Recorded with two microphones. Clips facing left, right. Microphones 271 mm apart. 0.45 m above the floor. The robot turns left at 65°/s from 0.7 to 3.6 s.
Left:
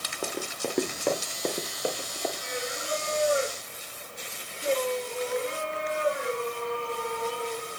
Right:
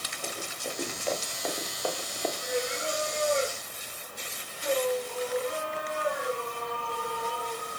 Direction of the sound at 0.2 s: 70° left (ahead or behind).